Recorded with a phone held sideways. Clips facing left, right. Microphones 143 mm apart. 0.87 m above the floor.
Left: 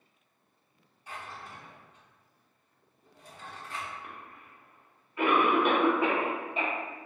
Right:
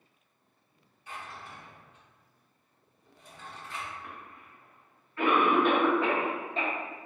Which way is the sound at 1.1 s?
35° left (ahead or behind).